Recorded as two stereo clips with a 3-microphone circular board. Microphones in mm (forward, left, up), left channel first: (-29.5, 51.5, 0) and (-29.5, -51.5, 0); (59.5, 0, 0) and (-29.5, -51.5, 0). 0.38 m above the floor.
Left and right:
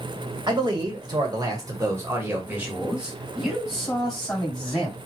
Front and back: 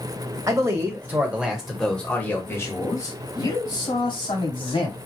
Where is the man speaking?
105° right, 1.8 m; by 5.0 s 10° left, 3 m.